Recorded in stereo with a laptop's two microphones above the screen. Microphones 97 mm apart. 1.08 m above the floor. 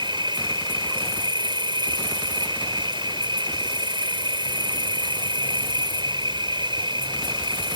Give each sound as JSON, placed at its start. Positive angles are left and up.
{"t": 0.0, "sound": "an insect", "side_deg": -60}